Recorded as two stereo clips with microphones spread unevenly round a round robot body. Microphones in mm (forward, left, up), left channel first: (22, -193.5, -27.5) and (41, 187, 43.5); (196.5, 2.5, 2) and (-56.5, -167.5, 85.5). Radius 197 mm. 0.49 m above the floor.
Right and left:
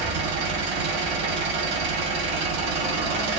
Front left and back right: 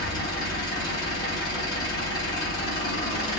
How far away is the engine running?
About 1.2 m.